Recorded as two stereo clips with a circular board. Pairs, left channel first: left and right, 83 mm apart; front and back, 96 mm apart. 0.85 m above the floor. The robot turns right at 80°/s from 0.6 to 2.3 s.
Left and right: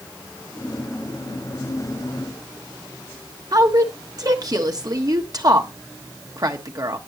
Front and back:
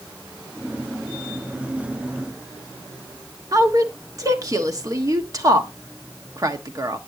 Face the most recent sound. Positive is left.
turn(degrees=-130)